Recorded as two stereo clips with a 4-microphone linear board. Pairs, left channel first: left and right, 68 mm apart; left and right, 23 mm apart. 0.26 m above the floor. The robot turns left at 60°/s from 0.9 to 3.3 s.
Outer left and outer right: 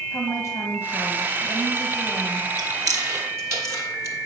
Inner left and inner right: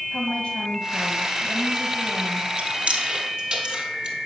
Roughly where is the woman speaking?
Left.